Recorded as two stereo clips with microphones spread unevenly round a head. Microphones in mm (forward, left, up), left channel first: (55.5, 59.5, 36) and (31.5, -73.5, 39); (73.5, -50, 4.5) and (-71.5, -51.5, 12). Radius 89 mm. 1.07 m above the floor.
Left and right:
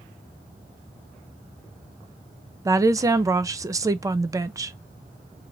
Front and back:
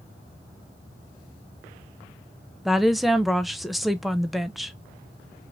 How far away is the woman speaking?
About 0.5 m.